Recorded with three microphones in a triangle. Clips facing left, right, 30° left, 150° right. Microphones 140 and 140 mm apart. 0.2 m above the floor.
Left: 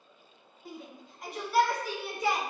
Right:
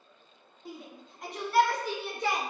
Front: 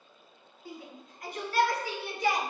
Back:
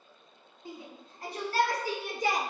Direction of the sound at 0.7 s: Straight behind.